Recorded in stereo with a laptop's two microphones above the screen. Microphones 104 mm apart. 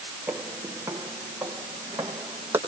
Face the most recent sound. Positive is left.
turn(degrees=-20)  # may be behind; listen again after turning